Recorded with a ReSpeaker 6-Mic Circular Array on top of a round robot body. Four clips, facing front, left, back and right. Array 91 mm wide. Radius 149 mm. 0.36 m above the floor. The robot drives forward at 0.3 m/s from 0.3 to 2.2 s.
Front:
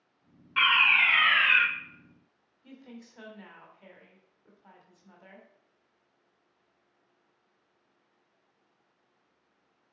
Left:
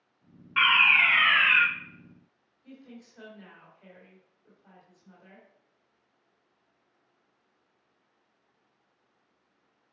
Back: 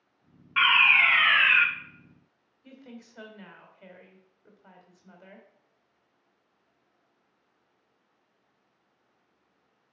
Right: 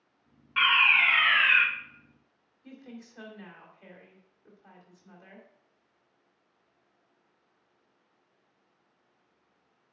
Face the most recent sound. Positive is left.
turn(degrees=-155)